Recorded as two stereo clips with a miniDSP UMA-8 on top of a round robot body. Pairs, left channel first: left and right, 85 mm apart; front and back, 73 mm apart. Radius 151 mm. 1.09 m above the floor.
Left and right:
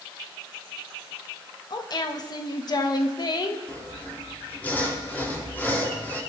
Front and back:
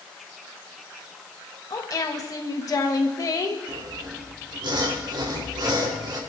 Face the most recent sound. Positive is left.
turn(degrees=165)